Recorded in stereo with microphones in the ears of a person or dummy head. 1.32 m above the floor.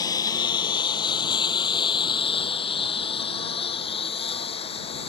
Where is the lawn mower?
25° left (ahead or behind); by 5.1 s 35° left (ahead or behind).